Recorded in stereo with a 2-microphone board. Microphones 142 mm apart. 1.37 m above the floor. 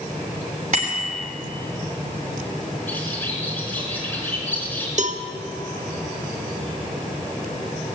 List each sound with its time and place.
0.7 s a bicycle bell: 65° right (ahead or behind), 3 m
2.9 s a bird: 10° left (ahead or behind), 3.5 m
5.0 s a cowbell: 55° right (ahead or behind), 0.8 m